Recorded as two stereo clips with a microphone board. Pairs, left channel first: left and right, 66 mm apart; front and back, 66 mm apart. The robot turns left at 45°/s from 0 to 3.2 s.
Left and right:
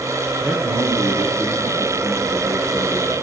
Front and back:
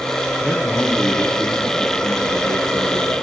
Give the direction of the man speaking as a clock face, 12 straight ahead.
2 o'clock.